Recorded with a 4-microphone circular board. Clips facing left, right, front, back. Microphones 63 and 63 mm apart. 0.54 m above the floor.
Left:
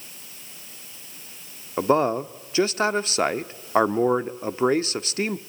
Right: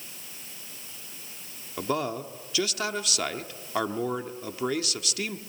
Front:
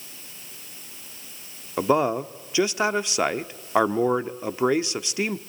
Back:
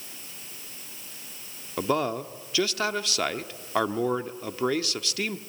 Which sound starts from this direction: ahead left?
A man speaking, at 1.8 s.